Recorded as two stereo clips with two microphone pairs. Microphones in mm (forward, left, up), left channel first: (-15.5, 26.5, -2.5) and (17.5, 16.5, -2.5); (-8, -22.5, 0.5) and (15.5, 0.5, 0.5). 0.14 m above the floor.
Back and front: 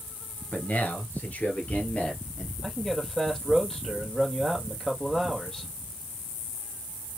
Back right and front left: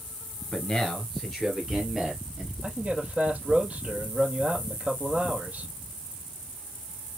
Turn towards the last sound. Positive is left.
turn(degrees=85)